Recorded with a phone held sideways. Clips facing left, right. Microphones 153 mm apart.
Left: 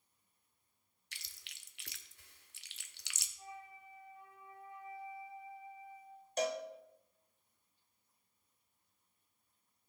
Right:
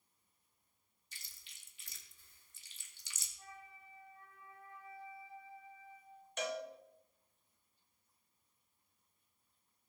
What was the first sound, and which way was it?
Chewing, 75° left (ahead or behind).